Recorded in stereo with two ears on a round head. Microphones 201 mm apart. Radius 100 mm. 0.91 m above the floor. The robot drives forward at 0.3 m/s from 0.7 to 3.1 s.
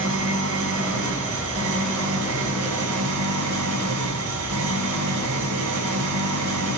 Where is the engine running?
70° right (ahead or behind), 3.5 m; by 6.8 s 80° right, 3.5 m.